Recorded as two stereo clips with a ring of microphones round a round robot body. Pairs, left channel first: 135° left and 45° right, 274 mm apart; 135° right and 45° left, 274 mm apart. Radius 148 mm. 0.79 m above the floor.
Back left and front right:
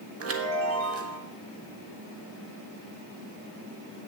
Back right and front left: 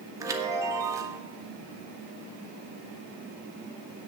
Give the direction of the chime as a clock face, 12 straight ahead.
1 o'clock.